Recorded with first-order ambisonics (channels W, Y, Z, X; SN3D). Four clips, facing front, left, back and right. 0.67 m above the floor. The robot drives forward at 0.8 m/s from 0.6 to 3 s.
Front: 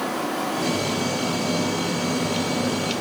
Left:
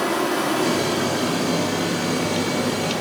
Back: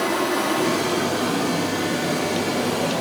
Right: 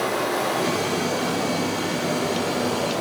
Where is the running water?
120° left, 4.5 m; by 3.0 s 140° left, 5.5 m.